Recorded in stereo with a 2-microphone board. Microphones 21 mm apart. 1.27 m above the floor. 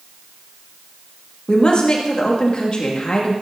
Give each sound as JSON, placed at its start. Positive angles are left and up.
{"t": 1.5, "sound": "a woman speaking", "side_deg": 50, "distance_m": 2.5}